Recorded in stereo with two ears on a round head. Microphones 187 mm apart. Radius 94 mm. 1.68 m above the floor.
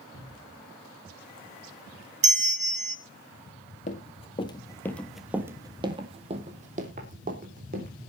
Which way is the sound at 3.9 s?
35° left (ahead or behind).